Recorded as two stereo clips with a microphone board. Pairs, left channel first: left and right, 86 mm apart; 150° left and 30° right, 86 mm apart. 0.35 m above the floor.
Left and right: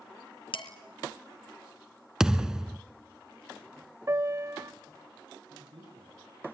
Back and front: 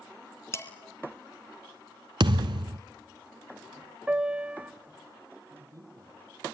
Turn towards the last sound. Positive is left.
turn(degrees=-80)